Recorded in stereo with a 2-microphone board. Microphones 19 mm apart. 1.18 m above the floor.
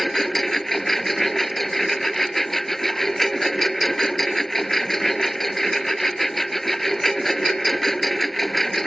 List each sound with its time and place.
0.0 s a lawn mower: 15° left (ahead or behind)